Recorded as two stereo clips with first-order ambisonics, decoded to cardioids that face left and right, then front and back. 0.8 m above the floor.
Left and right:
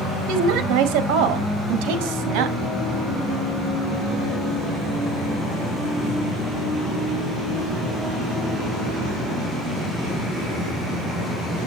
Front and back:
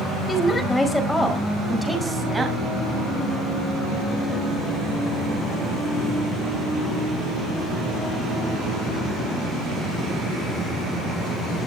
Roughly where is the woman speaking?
Right.